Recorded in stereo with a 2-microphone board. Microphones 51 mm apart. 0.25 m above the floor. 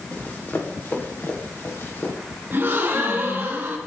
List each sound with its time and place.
0.1 s running footsteps: 35° left (ahead or behind), 3.5 m; by 2.1 s 50° left (ahead or behind), 4.5 m
2.5 s a gasp: 40° right (ahead or behind), 3 m